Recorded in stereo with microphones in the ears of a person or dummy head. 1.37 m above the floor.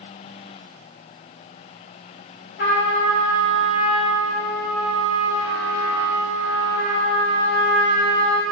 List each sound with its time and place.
2.6 s a trumpet: 55° left (ahead or behind), 1.4 m